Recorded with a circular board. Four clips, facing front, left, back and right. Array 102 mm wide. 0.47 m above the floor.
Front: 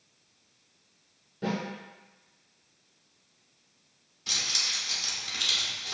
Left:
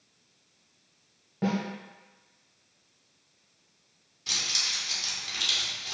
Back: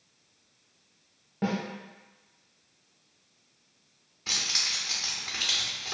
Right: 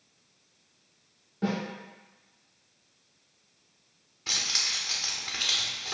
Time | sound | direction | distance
1.4 | a snare drum | 155° left | 1.2 m
4.3 | keys jangling | 135° right | 0.6 m